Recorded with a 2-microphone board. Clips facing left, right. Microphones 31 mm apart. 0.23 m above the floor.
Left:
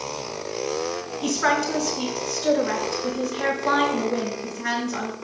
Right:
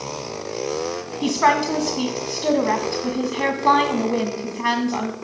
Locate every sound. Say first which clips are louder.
1.2 s a woman speaking: right 4 dB; 45° right (ahead or behind), 2 m